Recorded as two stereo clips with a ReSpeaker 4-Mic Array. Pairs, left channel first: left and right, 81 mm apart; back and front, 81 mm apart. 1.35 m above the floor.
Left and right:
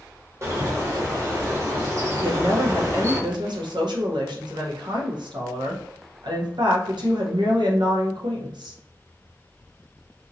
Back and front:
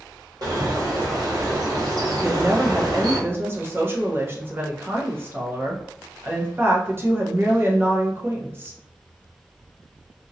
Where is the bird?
35° right, 1.5 m.